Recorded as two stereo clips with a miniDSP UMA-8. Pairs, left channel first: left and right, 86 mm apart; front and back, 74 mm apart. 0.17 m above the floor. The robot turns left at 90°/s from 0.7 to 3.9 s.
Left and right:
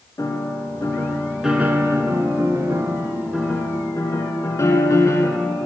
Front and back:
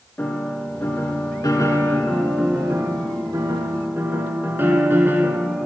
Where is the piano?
60° left, 1.4 m; by 5.7 s 130° left, 1.4 m.